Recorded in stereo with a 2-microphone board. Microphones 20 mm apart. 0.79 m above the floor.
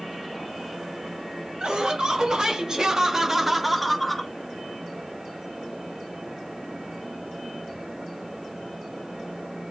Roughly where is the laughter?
Right.